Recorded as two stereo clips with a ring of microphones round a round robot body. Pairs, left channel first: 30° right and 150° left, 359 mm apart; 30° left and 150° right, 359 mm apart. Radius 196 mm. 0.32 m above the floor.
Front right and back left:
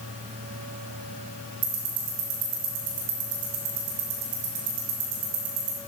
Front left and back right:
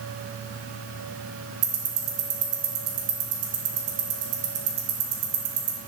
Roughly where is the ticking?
Behind.